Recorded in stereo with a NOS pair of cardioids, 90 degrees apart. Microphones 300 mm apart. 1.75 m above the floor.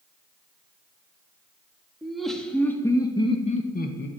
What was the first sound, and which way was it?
Laughter, straight ahead.